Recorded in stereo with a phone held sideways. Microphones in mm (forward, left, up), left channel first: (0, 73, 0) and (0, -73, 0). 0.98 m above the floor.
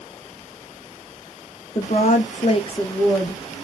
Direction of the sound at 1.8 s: 45° left (ahead or behind).